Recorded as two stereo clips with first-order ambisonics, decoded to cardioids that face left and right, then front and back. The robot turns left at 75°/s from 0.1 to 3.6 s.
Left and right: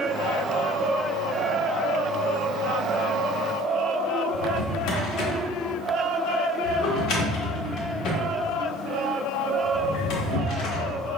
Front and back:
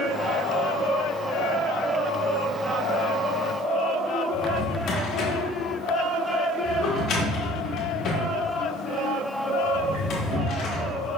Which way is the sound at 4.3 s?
50° left.